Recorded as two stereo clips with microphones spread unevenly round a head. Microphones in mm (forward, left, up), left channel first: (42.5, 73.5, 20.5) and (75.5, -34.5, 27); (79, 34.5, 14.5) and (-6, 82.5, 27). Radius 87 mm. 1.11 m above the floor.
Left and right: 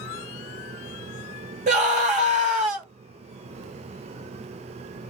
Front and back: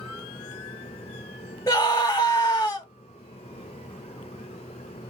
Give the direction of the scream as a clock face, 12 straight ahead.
3 o'clock.